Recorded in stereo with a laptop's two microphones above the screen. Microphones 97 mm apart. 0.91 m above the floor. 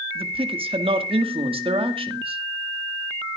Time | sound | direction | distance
0.1 | a man speaking | 70° right (ahead or behind) | 1.8 m